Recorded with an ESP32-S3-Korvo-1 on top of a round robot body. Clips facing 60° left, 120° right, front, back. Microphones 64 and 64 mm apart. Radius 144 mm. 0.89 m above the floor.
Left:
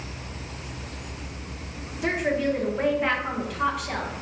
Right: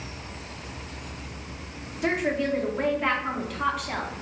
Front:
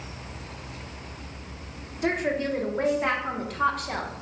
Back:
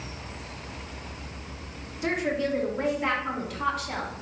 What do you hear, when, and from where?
2.0 s a woman speaking: 30° right, 1.3 m